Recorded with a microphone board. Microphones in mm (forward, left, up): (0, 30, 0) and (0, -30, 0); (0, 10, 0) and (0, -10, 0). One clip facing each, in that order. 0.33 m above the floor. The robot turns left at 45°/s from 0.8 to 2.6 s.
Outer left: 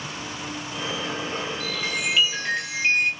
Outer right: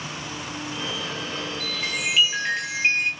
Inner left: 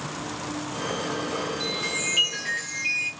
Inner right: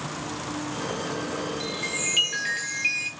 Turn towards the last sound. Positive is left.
turn(degrees=-35)